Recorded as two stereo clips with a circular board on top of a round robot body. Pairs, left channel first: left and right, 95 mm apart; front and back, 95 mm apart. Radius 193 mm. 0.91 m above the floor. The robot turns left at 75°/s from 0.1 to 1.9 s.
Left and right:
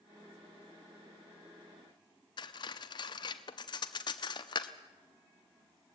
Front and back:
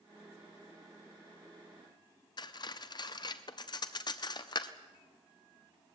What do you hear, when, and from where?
2.4 s cutlery clinking: 45° left, 0.6 m